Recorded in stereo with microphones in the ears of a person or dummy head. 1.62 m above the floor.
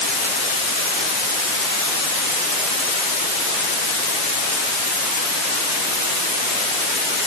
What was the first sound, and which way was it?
Only background noise.